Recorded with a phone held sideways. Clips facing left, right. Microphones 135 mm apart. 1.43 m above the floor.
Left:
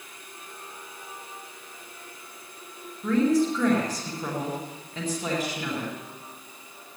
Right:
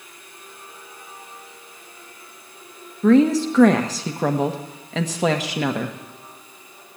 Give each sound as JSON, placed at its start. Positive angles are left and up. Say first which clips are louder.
{"t": 3.0, "sound": "a woman speaking", "louder": "right 7 dB", "side_deg": -80, "distance_m": 1.2}